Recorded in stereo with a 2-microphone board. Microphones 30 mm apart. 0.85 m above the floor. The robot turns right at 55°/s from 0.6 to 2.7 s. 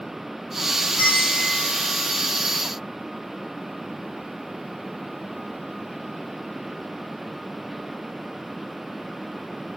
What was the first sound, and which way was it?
A bell, 100° left.